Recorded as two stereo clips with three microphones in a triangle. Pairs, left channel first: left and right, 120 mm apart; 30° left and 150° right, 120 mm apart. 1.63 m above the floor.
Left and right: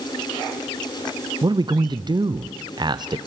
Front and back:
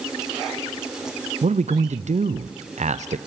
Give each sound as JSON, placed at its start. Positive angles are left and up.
{"t": 1.4, "sound": "a man speaking", "azimuth_deg": -145, "distance_m": 0.6}